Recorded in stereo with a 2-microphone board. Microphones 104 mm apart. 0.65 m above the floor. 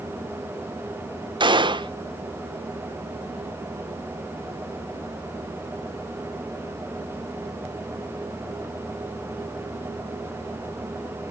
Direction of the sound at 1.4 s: 45° right (ahead or behind).